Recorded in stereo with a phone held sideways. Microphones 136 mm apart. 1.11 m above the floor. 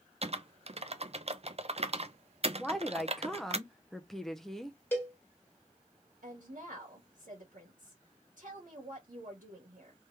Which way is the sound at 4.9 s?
15° left (ahead or behind).